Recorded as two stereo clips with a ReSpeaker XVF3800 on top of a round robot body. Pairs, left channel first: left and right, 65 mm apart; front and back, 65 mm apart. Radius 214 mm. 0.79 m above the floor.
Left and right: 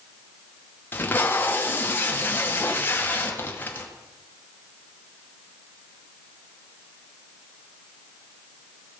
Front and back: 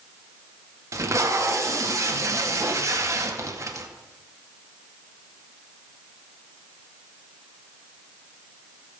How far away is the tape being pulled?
About 2.5 m.